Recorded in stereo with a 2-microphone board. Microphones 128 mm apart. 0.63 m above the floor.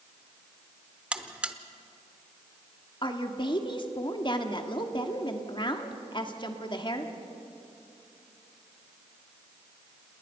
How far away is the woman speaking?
About 1.5 m.